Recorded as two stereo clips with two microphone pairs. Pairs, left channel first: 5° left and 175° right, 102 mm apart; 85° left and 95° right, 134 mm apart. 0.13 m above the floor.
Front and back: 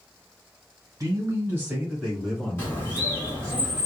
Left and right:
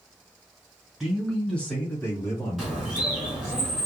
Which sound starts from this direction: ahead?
A bird, at 2.6 s.